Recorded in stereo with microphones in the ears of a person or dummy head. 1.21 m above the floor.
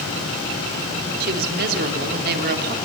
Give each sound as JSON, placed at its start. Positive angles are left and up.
{"t": 1.2, "sound": "a woman speaking", "side_deg": -50, "distance_m": 4.0}